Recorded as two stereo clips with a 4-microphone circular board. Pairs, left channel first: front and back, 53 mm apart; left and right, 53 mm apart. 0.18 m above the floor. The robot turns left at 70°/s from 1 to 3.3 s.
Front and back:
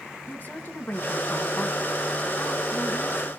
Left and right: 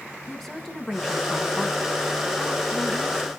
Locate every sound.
0.3 s a woman speaking: 10° left, 1.5 m; by 3.3 s 150° right, 1.5 m